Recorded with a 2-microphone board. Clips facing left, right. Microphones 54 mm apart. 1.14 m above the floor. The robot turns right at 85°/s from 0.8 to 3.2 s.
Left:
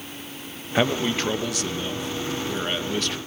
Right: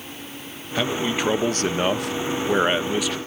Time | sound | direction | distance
0.8 | a man speaking | 160° left | 1.1 m